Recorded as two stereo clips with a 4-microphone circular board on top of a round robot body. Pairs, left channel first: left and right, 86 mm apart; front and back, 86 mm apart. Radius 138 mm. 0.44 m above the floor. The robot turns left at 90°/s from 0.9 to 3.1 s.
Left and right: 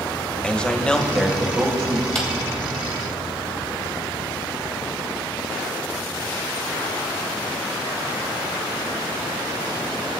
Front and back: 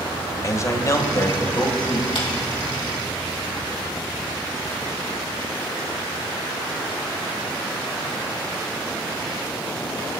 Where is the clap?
5° left, 3 m; by 2.3 s 5° right, 3 m.